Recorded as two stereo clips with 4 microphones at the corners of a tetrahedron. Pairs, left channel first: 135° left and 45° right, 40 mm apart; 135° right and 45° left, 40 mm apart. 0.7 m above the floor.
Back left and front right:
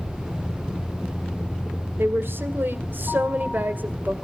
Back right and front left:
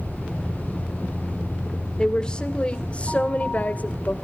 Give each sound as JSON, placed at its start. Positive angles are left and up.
{"t": 2.0, "sound": "a woman speaking", "azimuth_deg": -60, "distance_m": 1.9}